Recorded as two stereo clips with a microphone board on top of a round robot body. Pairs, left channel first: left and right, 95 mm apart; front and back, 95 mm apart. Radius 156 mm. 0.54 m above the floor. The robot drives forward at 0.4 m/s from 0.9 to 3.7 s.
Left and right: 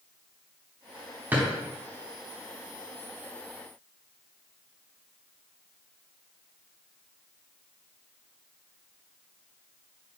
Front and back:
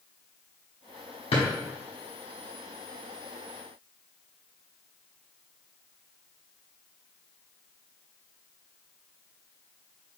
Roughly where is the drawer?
Ahead.